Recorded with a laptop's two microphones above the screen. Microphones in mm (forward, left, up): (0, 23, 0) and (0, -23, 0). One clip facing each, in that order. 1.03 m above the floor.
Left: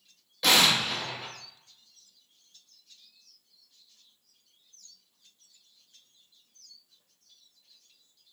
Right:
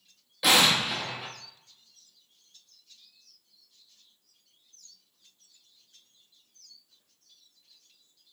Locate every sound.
0.4 s an explosion: 10° right (ahead or behind), 0.6 m